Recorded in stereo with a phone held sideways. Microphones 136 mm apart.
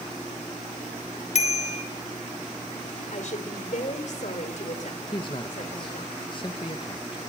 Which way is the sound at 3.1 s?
65° left (ahead or behind).